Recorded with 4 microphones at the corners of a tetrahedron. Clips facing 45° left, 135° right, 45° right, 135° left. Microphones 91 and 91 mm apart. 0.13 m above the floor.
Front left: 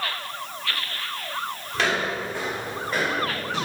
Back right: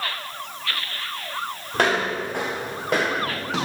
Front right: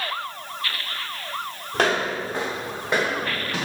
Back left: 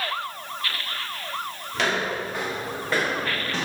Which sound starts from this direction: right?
Footsteps, at 1.7 s.